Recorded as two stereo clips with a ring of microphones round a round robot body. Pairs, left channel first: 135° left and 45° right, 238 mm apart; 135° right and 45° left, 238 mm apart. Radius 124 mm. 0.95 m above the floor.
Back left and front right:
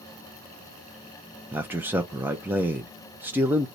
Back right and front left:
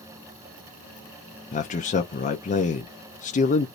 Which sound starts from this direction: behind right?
A man speaking, at 1.5 s.